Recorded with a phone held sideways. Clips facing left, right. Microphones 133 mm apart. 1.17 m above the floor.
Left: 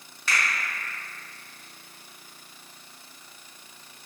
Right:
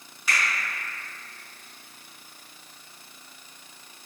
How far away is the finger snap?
About 1.5 m.